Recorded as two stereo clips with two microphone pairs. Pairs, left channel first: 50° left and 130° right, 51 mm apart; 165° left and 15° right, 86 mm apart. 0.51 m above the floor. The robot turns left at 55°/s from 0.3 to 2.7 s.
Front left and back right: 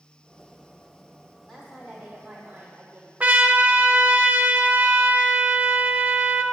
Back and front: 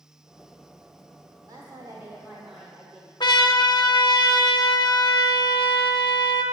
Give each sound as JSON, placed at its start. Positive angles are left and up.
{"t": 1.5, "sound": "a woman speaking", "azimuth_deg": -5, "distance_m": 1.2}
{"t": 3.2, "sound": "a trumpet", "azimuth_deg": 175, "distance_m": 0.6}